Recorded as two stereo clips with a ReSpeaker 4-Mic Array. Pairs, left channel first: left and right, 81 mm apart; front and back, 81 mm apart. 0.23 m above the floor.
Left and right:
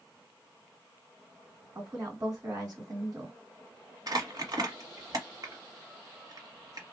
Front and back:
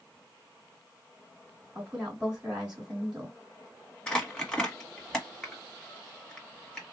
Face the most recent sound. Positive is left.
turn(degrees=-80)